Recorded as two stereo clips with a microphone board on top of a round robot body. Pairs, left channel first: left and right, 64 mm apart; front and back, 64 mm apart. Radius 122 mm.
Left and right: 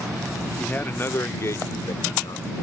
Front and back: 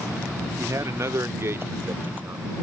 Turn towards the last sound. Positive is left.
turn(degrees=120)